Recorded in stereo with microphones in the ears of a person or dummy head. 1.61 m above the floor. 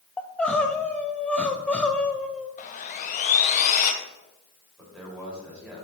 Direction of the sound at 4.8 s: 10° right (ahead or behind).